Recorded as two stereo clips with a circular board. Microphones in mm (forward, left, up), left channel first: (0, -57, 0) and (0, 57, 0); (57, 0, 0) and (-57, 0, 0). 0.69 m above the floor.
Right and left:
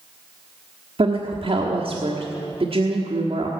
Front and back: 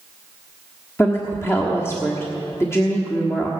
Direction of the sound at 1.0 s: 65° left.